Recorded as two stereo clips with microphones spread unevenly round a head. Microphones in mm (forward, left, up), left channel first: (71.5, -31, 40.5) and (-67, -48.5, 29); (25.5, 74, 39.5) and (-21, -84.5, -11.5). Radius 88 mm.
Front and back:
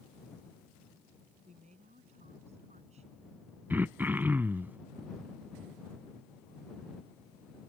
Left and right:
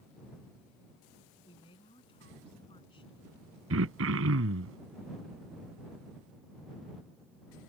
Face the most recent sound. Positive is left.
turn(degrees=-95)